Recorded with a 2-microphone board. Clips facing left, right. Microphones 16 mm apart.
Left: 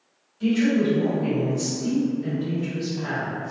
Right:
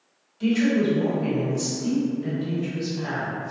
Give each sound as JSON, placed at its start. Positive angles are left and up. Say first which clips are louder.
{"t": 0.4, "sound": "a woman speaking", "louder": "even", "side_deg": -25, "distance_m": 1.7}